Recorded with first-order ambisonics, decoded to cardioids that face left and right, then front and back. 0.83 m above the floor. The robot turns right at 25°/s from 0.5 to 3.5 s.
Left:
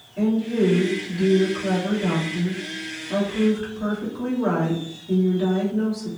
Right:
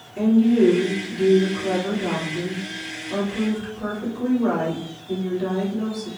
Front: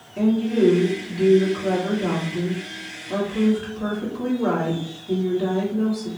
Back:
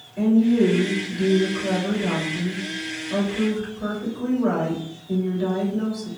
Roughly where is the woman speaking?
Ahead right.